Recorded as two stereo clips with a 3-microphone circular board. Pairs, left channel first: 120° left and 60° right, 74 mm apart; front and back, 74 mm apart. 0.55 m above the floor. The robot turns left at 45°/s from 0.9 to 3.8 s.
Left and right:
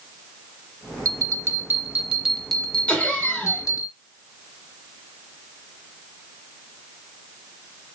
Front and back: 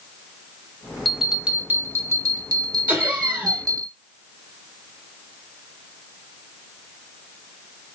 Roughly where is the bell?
Right.